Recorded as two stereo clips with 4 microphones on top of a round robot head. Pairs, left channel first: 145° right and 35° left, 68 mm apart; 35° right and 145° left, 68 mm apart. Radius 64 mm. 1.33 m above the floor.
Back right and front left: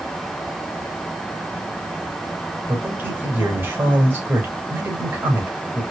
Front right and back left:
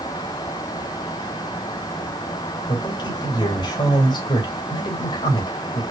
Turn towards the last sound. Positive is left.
turn(degrees=-30)